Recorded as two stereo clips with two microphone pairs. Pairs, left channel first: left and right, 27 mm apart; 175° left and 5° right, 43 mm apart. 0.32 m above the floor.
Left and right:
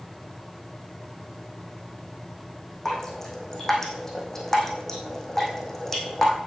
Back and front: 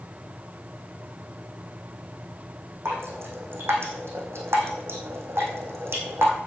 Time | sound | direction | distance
2.9 | dripping | 15° left | 3.5 m